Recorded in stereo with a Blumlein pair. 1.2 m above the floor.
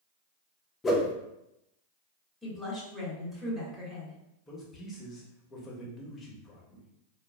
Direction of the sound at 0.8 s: 15° left.